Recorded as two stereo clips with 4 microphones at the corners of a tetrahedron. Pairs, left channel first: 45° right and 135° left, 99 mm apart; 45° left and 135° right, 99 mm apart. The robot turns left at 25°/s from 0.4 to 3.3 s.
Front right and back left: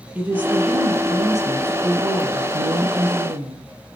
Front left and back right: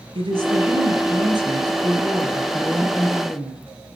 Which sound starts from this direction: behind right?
A woman speaking, at 0.1 s.